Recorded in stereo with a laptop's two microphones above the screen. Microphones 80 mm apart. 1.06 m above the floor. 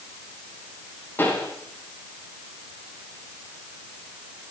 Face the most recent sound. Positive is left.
turn(degrees=25)  # may be behind; listen again after turning